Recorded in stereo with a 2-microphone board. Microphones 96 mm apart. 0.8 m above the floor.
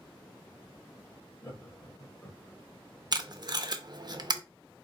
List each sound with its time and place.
1.4 s laughter: 35° left (ahead or behind), 2 m; by 2.6 s 20° left (ahead or behind), 3 m
3.1 s tape being pulled: 45° right (ahead or behind), 0.5 m